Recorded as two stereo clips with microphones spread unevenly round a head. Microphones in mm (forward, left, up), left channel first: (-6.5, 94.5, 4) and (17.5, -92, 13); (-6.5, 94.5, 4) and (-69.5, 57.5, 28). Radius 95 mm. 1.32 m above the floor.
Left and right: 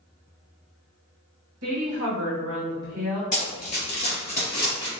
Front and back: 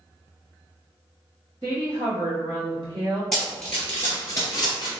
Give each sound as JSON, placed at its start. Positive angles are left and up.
{"t": 1.6, "sound": "a woman speaking", "azimuth_deg": -90, "distance_m": 1.1}
{"t": 3.3, "sound": "running footsteps", "azimuth_deg": 135, "distance_m": 1.7}